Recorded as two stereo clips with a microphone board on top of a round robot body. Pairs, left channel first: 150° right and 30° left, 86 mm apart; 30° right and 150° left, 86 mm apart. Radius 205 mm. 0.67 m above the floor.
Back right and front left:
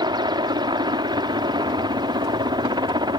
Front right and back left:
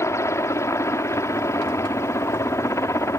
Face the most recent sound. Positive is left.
turn(degrees=20)